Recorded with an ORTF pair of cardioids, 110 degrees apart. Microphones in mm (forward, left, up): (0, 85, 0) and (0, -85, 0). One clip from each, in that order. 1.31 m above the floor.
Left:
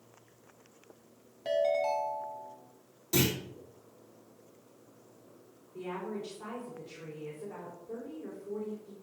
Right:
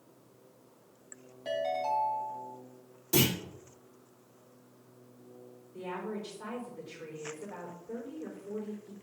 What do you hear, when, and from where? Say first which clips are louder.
1.4 s a ringtone: left 3 dB; 20° left, 3 m
3.1 s a clunk: right 1 dB; 10° right, 3 m
5.7 s a woman speaking: even; straight ahead, 4.5 m